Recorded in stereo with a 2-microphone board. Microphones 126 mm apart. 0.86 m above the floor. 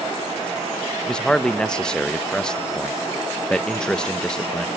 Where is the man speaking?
5° left (ahead or behind), 0.6 m.